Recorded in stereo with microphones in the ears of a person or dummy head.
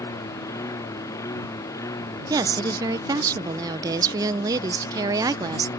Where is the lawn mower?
15° left (ahead or behind).